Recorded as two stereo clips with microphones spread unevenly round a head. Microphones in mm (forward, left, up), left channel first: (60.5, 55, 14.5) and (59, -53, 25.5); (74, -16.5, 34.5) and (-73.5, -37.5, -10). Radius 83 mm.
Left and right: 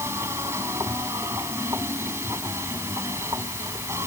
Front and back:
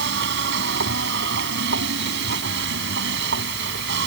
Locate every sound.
0.0 s a machine running: 165° right